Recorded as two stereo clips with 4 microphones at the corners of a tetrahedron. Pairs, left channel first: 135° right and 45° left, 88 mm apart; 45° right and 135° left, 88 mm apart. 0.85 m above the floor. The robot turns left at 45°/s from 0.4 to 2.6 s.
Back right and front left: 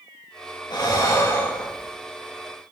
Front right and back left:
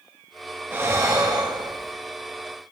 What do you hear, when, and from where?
0.7 s breathing: 165° right, 1.2 m; by 1.9 s 140° left, 1.2 m